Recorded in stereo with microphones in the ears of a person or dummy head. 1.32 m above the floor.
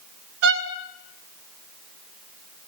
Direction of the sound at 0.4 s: 65° right (ahead or behind).